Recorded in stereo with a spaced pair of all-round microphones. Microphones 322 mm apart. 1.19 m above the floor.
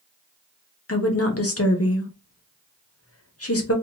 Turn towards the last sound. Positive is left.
turn(degrees=45)  # may be behind; listen again after turning